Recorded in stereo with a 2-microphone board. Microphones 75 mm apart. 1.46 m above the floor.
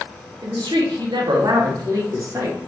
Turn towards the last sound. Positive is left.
turn(degrees=-40)  # may be behind; listen again after turning